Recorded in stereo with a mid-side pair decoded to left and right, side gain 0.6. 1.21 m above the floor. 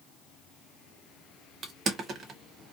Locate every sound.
1.6 s crushing: 45° right, 0.9 m